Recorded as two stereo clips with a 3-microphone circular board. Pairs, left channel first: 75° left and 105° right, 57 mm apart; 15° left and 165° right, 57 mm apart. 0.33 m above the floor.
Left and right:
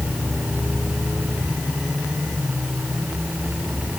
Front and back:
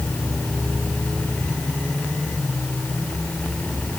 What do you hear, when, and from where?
Only background noise.